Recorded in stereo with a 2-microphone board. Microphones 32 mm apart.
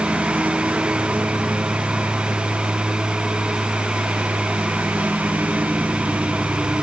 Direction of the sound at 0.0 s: 80° right.